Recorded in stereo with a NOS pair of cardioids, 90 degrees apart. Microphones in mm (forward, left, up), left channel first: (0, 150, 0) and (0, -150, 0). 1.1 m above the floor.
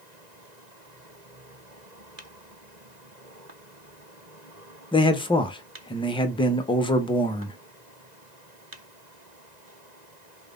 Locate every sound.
4.9 s a man speaking: 15° left, 0.7 m